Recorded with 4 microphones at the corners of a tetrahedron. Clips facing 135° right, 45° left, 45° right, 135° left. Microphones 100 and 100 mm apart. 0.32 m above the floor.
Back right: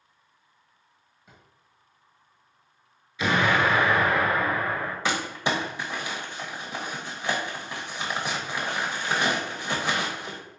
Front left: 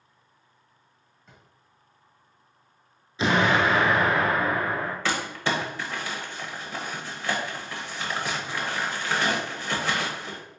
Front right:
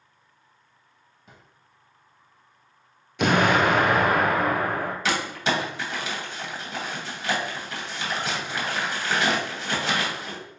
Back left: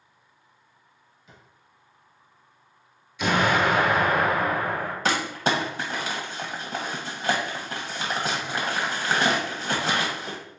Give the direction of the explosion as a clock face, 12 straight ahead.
1 o'clock.